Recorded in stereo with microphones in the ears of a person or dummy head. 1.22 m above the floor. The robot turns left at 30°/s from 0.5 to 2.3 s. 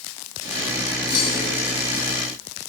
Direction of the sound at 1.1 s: 25° left (ahead or behind).